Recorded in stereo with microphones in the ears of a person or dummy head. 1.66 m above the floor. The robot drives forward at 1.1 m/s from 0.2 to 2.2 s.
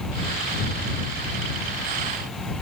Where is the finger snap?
No finger snap in this recording.